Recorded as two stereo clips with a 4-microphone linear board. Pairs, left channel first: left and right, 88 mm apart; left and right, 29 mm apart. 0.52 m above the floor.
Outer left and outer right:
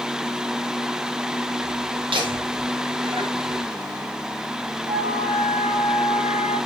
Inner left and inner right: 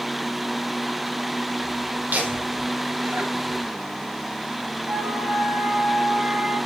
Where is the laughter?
75° right (ahead or behind), 7.5 m; by 3.8 s 80° right, 7 m.